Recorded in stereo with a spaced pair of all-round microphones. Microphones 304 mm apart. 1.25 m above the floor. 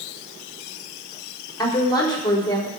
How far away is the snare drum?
No snare drum in this recording.